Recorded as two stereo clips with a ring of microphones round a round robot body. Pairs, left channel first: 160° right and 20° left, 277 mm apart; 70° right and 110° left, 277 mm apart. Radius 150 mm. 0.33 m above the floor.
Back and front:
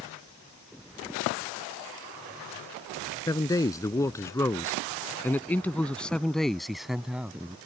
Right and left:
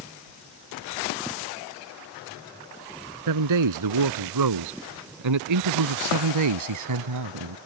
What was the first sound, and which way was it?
A man speaking, 125° left.